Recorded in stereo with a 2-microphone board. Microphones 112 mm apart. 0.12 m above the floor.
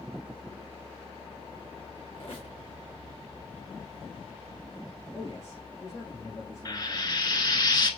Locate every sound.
2.1 s a squeak: 50° left (ahead or behind), 1.7 m
5.1 s a man speaking: 30° left (ahead or behind), 2.5 m
6.7 s frying: 40° left (ahead or behind), 0.8 m